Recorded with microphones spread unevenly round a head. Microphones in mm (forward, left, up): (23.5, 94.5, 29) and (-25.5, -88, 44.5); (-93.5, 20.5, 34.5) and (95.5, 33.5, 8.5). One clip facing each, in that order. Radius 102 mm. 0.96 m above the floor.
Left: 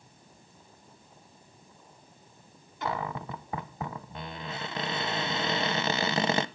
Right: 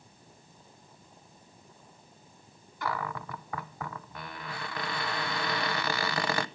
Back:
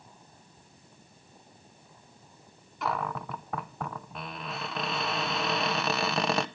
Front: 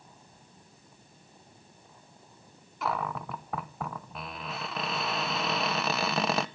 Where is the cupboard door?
75° left, 0.7 m.